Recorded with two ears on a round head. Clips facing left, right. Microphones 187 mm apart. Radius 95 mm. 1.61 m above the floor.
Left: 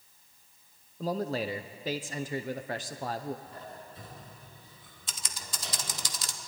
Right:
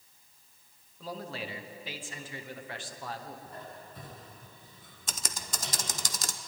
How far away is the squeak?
About 9 m.